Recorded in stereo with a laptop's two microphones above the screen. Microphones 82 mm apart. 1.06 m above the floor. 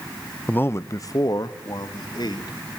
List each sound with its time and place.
0.5 s a man speaking: 20° left (ahead or behind), 0.7 m; by 2.7 s 55° left (ahead or behind), 3.5 m